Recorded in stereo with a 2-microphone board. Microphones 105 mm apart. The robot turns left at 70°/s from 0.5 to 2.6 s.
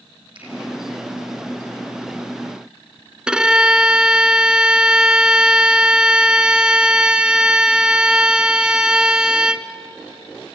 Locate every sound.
0.3 s a finger snap: 50° right (ahead or behind), 6 m
3.3 s a violin: 10° right (ahead or behind), 0.7 m